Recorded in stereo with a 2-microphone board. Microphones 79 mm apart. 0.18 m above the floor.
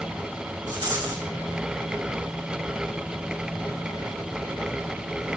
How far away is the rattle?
About 3 m.